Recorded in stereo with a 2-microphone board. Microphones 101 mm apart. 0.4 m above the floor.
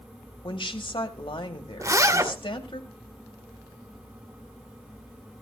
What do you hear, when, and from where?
0.4 s a woman speaking: 60° left (ahead or behind), 2 m
1.8 s a zipper: 35° right (ahead or behind), 1.6 m